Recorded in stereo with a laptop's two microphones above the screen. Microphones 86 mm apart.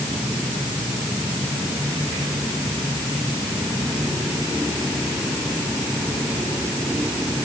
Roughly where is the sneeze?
I don't hear a sneeze.